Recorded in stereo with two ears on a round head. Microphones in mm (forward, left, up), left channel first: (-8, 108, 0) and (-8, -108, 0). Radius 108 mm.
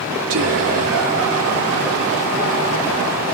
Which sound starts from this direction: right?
Whispering, at 0.3 s.